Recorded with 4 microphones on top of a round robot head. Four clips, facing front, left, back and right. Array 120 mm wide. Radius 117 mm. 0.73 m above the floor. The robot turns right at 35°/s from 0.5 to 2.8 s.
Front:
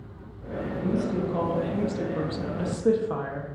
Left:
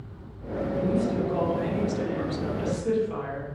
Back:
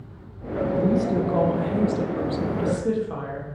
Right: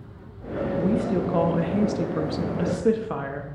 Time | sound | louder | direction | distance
0.8 | a woman speaking | right 2 dB, back 4 dB | 135° right | 1.2 m